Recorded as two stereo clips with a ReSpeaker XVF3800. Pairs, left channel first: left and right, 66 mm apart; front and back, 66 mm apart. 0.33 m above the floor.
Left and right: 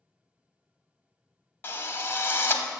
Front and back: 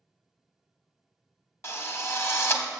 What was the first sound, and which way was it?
A drill, 40° left.